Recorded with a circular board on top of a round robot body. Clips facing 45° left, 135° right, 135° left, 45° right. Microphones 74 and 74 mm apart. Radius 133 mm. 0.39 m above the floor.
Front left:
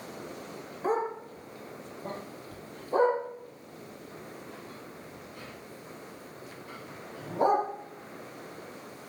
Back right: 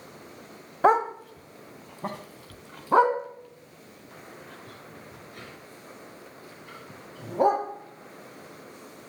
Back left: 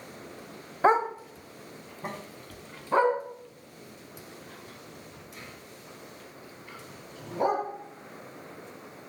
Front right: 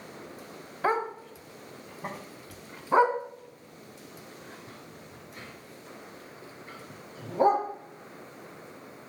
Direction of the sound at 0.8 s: 155° right.